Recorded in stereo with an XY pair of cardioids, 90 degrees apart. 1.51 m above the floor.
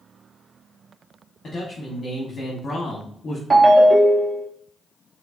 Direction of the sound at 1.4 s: 40° left.